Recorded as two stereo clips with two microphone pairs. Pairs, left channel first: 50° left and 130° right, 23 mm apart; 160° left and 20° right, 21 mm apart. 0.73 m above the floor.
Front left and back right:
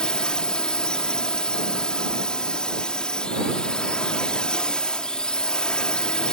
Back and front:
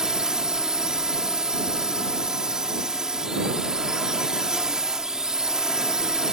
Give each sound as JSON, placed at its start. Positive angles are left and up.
{"t": 0.0, "sound": "a drone", "azimuth_deg": 25}